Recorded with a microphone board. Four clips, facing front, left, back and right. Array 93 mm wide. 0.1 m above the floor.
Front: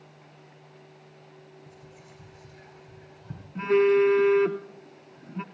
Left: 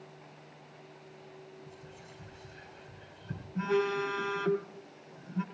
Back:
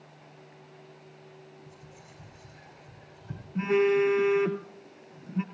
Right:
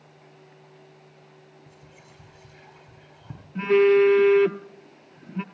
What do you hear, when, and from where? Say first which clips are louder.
1.7 s whispering: left 1 dB, front 1 dB; 105° right, 6.5 m
3.5 s a phone buzzing: right 13 dB, front 3 dB; 100° right, 0.8 m